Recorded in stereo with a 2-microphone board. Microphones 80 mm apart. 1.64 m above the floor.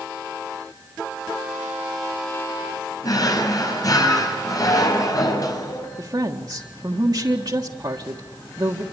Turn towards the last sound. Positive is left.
turn(degrees=-65)  # may be behind; listen again after turning